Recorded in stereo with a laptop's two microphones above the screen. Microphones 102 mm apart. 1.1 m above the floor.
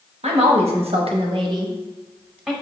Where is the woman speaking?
85° right, 1.0 m; by 2.5 s 10° right (ahead or behind), 1.0 m.